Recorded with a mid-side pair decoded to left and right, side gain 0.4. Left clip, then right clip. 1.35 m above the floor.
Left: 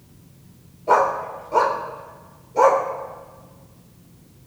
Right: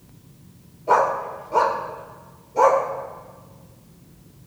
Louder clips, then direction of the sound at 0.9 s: Left 1 dB; 10° left.